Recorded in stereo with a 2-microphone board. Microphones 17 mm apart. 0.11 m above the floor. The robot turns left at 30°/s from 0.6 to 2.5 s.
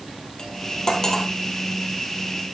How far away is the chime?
I don't hear a chime.